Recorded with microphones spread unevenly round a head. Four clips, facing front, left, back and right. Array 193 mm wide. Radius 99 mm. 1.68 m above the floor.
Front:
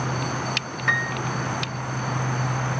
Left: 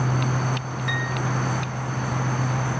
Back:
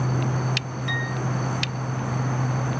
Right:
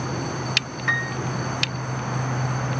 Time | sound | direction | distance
0.9 | a piano | 20° right | 0.9 m